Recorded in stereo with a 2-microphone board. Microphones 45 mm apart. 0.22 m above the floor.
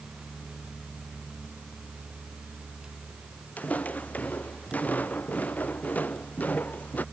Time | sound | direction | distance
3.6 | footsteps | 35° left (ahead or behind) | ?